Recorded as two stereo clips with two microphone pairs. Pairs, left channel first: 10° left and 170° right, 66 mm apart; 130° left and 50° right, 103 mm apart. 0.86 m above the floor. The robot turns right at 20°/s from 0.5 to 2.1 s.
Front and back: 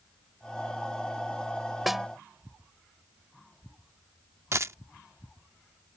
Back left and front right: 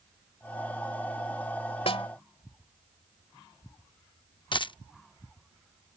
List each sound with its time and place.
1.9 s a snare drum: 100° left; by 2.1 s 105° left
4.5 s a dropped coin: 155° left